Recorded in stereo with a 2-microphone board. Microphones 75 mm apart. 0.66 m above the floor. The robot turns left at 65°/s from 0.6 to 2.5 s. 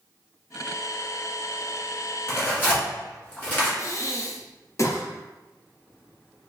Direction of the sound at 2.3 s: 40° left (ahead or behind).